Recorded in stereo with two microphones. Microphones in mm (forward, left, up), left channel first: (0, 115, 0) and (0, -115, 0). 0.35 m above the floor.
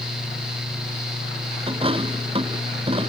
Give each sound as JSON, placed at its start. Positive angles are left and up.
{"t": 1.7, "sound": "a dropped coin", "side_deg": -25}